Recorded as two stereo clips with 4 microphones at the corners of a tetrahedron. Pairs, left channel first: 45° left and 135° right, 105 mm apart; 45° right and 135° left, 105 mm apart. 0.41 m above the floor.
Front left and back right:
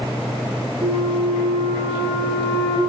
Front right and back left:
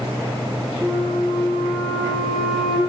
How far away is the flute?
About 3.5 m.